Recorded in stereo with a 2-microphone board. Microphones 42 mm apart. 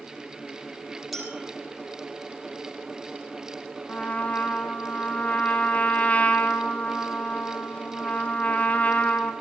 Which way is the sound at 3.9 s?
40° left (ahead or behind).